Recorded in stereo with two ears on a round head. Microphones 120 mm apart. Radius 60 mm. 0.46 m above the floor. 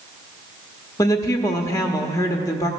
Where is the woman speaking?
25° left (ahead or behind), 0.9 m.